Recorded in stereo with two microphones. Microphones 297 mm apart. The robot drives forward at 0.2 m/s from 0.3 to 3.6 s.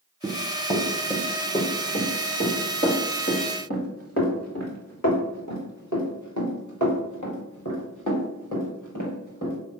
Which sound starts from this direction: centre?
Running footsteps, at 0.2 s.